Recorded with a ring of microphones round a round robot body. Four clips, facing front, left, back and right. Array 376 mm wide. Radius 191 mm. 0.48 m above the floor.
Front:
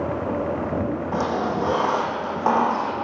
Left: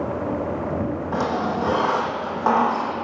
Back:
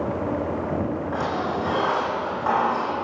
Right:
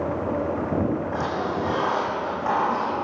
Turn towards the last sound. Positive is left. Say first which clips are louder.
# left 3 dB, front 3 dB
turn(degrees=40)